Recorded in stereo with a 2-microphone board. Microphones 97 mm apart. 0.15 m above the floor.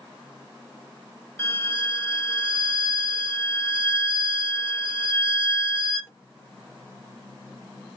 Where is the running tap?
I don't hear a running tap.